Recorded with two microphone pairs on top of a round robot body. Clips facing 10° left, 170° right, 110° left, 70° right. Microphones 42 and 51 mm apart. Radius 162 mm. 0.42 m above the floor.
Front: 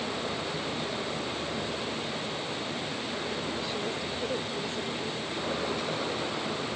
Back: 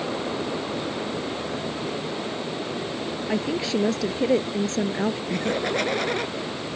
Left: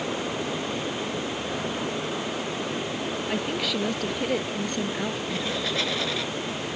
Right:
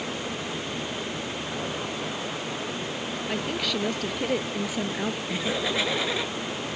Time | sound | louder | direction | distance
3.3 | a woman speaking | back 8 dB, even | 165° right | ?
5.3 | laughter | back 6 dB, right 1 dB | 150° right | ?